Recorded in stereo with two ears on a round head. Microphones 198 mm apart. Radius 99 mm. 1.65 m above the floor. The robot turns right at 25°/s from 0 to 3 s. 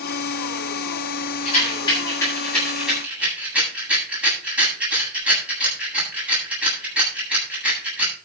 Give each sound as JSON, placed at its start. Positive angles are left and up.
{"t": 1.4, "sound": "a rattle", "side_deg": 35, "distance_m": 9.0}